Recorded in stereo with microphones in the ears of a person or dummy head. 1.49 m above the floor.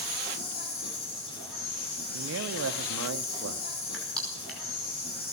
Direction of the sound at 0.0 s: 70° left (ahead or behind).